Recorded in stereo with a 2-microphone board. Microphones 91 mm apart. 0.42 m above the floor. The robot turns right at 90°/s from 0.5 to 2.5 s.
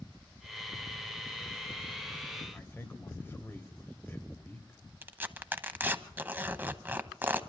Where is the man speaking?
20° left (ahead or behind), 2.5 m.